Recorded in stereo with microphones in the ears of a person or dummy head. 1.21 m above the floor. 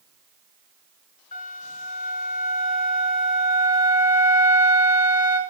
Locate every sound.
1.3 s a flute: 40° left (ahead or behind), 3.5 m